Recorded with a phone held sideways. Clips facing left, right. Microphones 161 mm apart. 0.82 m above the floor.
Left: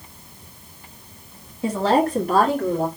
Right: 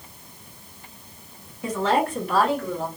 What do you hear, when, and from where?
1.6 s a woman speaking: 30° left (ahead or behind), 1.3 m; by 2.9 s 55° left (ahead or behind), 1.6 m